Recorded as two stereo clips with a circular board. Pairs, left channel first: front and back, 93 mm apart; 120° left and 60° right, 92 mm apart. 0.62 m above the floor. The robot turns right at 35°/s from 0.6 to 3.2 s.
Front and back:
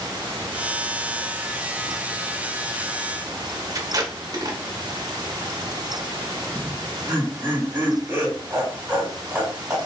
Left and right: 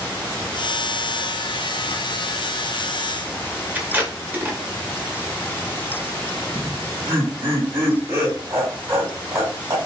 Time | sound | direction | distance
3.8 | tape being pulled | 130° right | 0.7 m
6.5 | laughter | 105° right | 2 m